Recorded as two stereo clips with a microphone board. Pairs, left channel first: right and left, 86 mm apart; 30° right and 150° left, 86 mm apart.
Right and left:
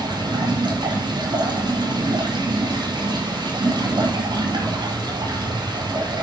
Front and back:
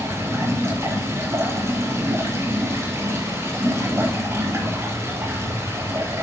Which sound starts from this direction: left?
Running water, at 0.0 s.